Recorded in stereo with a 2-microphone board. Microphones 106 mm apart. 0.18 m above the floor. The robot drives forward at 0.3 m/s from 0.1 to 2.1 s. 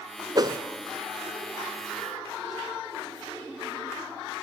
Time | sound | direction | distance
0.3 | a whoosh | 40° right (ahead or behind) | 0.6 m